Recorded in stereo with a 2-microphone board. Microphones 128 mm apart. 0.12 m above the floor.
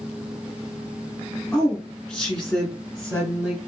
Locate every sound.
1.5 s a woman speaking: 5° left (ahead or behind), 1.2 m